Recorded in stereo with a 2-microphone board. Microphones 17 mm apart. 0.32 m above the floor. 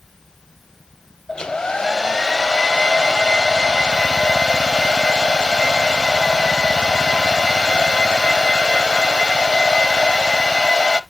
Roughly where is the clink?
No clink in this recording.